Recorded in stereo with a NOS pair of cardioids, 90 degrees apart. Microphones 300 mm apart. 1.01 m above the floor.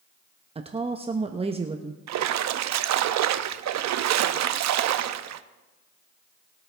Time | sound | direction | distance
0.6 | a woman speaking | 20° right | 0.9 m
2.1 | a splash | 65° right | 0.7 m